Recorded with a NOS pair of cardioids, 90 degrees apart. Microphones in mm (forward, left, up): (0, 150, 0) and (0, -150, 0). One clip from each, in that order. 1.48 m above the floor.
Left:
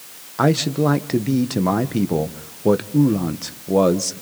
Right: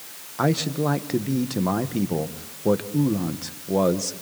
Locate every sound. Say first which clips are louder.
0.4 s a man speaking: left 5 dB; 25° left, 1.6 m